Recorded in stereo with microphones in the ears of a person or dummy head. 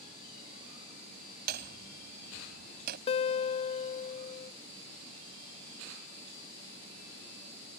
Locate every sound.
1.5 s hammering: 55° right (ahead or behind)
3.1 s a guitar: 35° left (ahead or behind)